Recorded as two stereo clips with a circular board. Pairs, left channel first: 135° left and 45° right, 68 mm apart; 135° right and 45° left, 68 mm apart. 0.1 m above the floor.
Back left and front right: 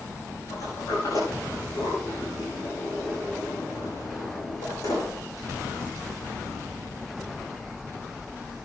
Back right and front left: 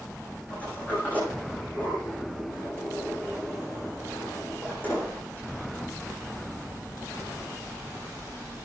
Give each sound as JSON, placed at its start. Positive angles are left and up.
{"t": 0.5, "sound": "a sliding door", "azimuth_deg": 160, "distance_m": 7.5}